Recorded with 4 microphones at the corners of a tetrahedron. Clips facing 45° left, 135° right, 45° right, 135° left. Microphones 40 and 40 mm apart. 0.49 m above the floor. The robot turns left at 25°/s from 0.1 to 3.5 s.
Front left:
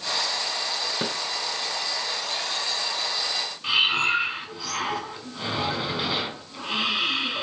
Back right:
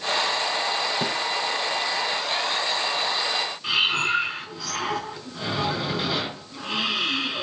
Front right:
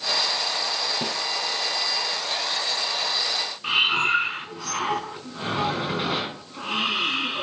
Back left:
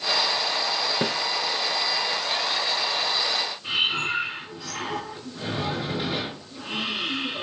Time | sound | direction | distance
1.0 | a snare drum | 115° left | 2.0 m
3.6 | breathing | 35° right | 4 m